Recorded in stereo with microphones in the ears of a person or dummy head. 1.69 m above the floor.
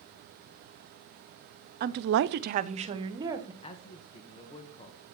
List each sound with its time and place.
1.8 s a woman speaking: 50° right (ahead or behind), 0.8 m; by 3.5 s 25° right (ahead or behind), 1.8 m
3.6 s a man speaking: 25° left (ahead or behind), 1.5 m